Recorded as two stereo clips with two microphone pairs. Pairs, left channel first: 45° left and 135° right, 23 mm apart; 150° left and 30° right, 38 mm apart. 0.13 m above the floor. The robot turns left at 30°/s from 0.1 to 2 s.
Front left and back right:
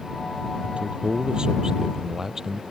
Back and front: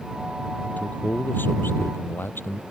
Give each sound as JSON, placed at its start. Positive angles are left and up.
{"t": 0.6, "sound": "a man speaking", "azimuth_deg": -160}